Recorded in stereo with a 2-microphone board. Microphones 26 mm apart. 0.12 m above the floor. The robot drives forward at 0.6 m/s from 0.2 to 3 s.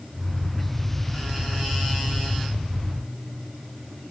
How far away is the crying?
I don't hear crying.